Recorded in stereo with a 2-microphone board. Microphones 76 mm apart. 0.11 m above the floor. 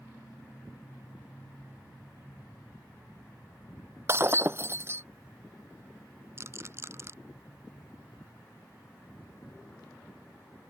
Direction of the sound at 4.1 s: 35° right (ahead or behind).